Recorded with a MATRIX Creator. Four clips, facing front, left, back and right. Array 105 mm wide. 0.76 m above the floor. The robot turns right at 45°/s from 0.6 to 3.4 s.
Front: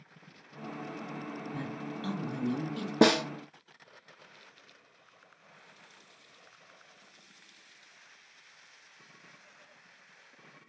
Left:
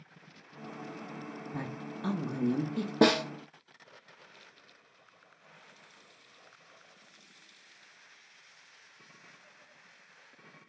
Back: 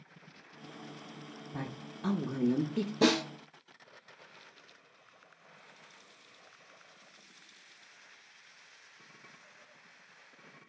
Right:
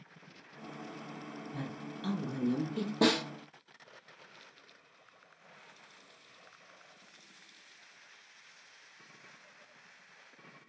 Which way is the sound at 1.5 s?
115° left.